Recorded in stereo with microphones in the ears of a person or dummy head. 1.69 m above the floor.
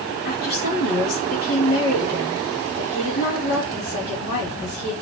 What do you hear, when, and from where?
0.2 s a woman speaking: 50° left (ahead or behind), 5.5 m